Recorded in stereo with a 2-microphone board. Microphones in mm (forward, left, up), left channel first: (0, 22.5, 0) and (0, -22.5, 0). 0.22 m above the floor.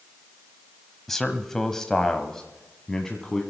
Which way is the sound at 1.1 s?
10° left (ahead or behind).